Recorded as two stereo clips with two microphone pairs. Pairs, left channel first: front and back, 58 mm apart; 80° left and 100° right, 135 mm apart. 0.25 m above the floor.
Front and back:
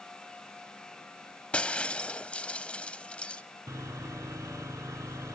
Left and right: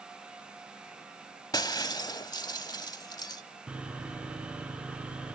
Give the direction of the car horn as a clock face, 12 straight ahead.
No car horn in this recording.